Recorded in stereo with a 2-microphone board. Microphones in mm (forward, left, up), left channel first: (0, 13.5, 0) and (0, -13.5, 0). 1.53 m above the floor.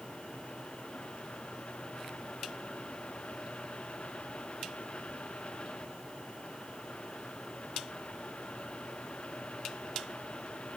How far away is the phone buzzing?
No phone buzzing in this recording.